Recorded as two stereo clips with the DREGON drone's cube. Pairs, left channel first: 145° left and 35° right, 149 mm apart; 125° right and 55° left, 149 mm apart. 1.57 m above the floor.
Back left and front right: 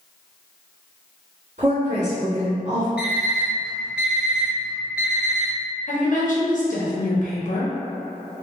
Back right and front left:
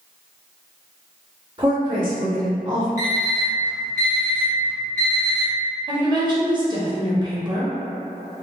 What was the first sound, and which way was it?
A woman speaking, 5° left.